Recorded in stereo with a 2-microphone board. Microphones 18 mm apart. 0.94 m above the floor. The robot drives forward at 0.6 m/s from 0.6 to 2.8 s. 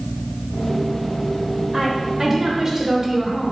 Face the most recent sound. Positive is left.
turn(degrees=-25)  # may be behind; listen again after turning